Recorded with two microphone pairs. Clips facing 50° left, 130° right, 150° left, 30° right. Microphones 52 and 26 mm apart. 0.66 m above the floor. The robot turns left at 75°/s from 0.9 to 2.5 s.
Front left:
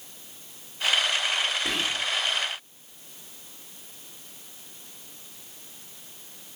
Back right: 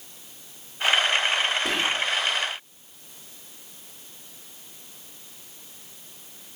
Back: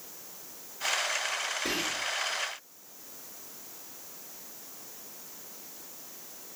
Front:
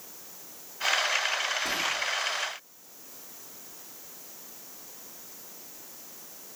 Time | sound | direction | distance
1.6 | whispering | 170° right | 1.6 m